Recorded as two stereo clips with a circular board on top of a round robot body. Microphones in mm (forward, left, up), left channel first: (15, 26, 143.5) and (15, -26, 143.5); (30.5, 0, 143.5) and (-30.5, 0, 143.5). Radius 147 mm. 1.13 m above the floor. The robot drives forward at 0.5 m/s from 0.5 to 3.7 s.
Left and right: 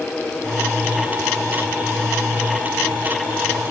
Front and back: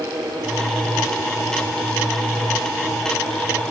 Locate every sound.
Only background noise.